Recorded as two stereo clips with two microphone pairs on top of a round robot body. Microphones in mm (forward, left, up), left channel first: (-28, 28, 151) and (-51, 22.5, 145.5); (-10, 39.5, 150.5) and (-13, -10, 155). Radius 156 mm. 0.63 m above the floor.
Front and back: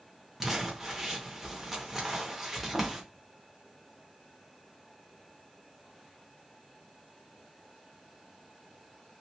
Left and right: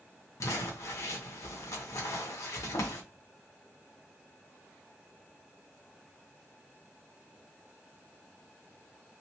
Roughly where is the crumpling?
Left.